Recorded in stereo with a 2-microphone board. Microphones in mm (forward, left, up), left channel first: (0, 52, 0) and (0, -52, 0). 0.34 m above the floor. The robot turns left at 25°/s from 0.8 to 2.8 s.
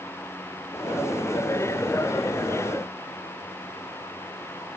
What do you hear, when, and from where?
Only background noise.